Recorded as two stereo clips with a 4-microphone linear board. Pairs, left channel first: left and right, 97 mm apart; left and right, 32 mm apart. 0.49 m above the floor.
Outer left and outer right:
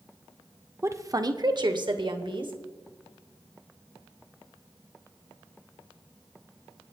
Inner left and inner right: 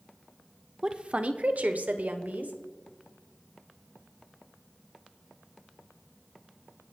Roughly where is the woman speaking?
Right.